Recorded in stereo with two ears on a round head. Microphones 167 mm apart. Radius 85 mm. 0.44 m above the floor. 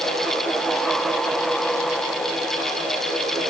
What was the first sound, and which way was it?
Only background noise.